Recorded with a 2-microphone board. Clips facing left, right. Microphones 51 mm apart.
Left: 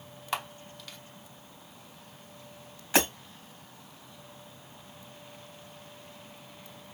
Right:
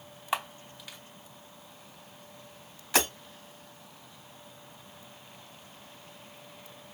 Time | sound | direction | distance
0.3 | a camera shutter | 15° right (ahead or behind) | 0.9 m
2.9 | breaking glass | 5° left (ahead or behind) | 3 m